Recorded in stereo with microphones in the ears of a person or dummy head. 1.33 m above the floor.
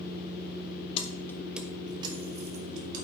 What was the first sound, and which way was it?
Keys jangling, 35° left (ahead or behind).